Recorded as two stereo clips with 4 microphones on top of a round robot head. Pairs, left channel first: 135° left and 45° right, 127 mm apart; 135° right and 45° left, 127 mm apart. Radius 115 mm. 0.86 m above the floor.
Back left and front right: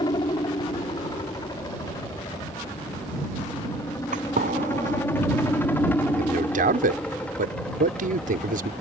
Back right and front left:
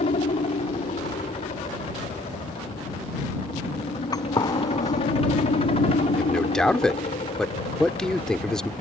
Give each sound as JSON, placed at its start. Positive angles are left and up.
{"t": 0.0, "sound": "a helicopter", "azimuth_deg": -170}
{"t": 4.1, "sound": "a gunshot", "azimuth_deg": -75}
{"t": 6.2, "sound": "a man speaking", "azimuth_deg": -50}